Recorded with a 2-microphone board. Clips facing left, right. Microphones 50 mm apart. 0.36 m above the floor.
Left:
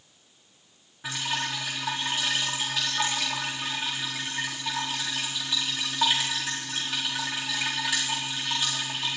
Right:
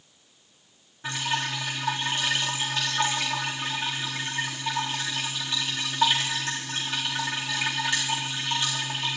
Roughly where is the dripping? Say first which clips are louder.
Right 2 dB; centre.